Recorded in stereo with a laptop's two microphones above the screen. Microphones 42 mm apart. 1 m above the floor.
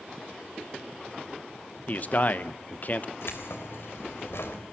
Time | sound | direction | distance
1.9 | a man speaking | 45° left (ahead or behind) | 1.0 m
3.2 | keys jangling | 80° left | 3 m